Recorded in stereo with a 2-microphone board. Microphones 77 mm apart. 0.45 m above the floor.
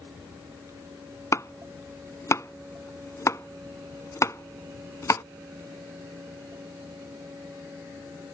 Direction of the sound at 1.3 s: 40° left (ahead or behind).